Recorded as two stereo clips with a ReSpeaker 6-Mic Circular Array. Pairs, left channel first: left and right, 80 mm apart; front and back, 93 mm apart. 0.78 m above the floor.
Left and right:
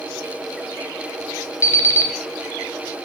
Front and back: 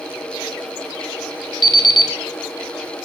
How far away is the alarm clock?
About 2.5 m.